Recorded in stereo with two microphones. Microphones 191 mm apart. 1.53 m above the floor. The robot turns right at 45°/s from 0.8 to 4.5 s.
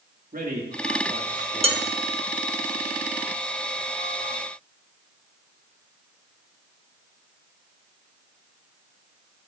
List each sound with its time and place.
0.3 s a man speaking: 50° right, 3 m; by 1.9 s straight ahead, 3 m
1.6 s dishes clattering: 30° right (ahead or behind), 1.2 m; by 1.8 s 35° right (ahead or behind), 1.2 m